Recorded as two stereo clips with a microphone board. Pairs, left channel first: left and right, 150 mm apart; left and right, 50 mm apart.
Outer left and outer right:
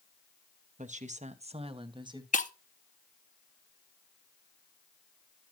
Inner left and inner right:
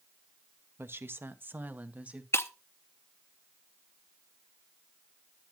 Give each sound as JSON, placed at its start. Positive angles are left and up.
{"t": 0.8, "sound": "a woman speaking", "side_deg": -50, "distance_m": 0.8}
{"t": 2.3, "sound": "breaking glass", "side_deg": 55, "distance_m": 0.7}